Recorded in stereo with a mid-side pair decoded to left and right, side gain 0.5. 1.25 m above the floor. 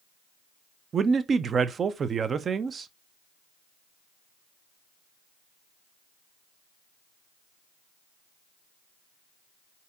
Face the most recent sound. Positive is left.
turn(degrees=-40)